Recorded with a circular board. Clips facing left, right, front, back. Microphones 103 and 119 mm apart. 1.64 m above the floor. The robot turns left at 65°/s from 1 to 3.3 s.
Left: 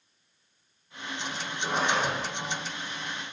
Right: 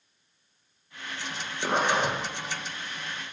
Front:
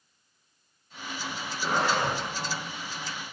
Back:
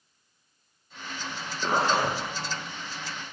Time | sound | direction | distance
1.6 | a zipper | 115° right | 2.5 m